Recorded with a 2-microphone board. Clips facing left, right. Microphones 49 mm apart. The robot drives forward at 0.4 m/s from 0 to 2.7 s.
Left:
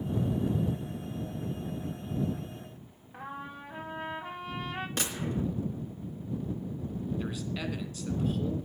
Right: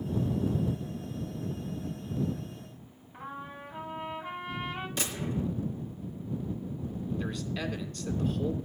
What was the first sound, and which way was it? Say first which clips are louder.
A trumpet: even; 90° left.